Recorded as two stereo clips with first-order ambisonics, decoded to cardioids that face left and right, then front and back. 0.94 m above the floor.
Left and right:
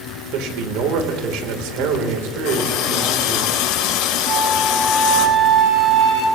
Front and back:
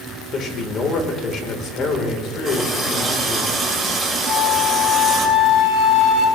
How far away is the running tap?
About 3.5 m.